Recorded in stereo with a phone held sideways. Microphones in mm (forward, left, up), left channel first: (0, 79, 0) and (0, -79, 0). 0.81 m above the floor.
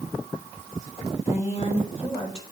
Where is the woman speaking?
45° left (ahead or behind), 4 m; by 2.4 s 35° left (ahead or behind), 3 m.